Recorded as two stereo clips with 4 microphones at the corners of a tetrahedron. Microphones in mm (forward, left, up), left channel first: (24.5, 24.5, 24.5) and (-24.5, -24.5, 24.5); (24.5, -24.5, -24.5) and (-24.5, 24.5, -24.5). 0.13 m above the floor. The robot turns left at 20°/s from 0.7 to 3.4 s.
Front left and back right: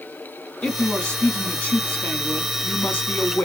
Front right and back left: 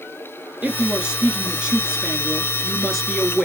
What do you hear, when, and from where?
0.6 s a woman speaking: 90° left, 1.2 m; by 3.5 s 35° left, 1.2 m